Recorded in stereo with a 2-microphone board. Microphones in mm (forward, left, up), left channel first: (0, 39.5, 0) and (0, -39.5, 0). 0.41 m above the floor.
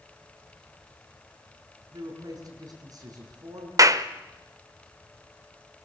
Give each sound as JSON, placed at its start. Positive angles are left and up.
{"t": 1.9, "sound": "a woman speaking", "side_deg": -60, "distance_m": 6.0}
{"t": 3.8, "sound": "a clap", "side_deg": -45, "distance_m": 0.8}